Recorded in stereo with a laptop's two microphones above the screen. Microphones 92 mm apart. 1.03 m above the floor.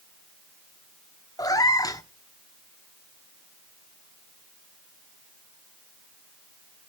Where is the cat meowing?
40° left (ahead or behind), 1.1 m.